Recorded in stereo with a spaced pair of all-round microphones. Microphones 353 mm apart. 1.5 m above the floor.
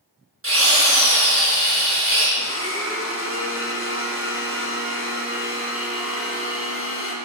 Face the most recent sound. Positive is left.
turn(degrees=35)  # may be behind; listen again after turning